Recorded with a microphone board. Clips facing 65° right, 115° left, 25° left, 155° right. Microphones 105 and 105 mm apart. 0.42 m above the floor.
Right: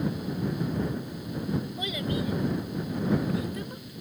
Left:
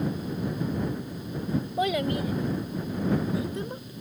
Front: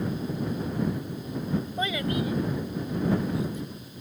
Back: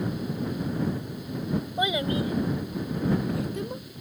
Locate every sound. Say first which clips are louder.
1.8 s a child speaking: left 5 dB, back 4 dB; 125° left; by 3.9 s straight behind